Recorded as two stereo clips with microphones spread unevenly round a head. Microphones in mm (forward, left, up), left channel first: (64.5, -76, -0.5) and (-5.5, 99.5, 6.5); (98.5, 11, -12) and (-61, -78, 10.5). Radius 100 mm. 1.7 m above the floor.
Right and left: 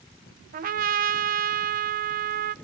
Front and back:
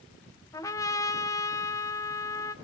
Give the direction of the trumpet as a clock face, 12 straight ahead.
9 o'clock.